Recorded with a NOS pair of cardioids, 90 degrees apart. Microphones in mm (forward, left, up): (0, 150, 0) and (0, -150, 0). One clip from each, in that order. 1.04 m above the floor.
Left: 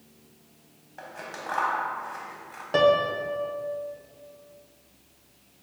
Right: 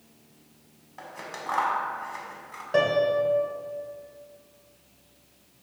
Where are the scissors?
5° right, 0.6 m.